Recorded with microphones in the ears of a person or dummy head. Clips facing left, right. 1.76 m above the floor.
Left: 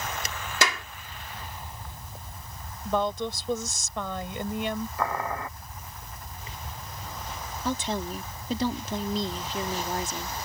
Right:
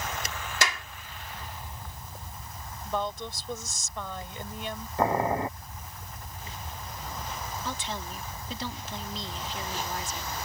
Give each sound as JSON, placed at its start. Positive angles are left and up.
{"t": 0.6, "sound": "a clap", "side_deg": 75}
{"t": 2.9, "sound": "a woman speaking", "side_deg": 60}
{"t": 5.0, "sound": "boiling", "side_deg": -25}
{"t": 7.7, "sound": "a woman speaking", "side_deg": 40}